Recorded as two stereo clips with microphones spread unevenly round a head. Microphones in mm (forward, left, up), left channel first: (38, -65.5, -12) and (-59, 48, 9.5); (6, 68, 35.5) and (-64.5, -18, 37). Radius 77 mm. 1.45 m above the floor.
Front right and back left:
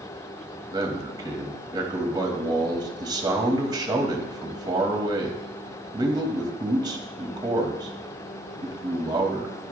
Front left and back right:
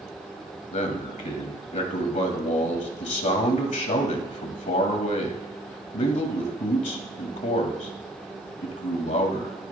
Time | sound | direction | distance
0.7 | a man speaking | 65° left | 2 m